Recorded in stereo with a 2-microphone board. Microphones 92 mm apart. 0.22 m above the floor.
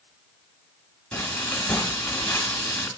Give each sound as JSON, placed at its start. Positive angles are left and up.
{"t": 1.1, "sound": "frying", "side_deg": 10, "distance_m": 1.5}